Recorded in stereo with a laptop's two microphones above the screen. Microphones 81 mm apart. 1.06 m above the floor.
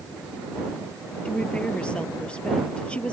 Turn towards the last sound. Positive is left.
turn(degrees=10)  # may be behind; listen again after turning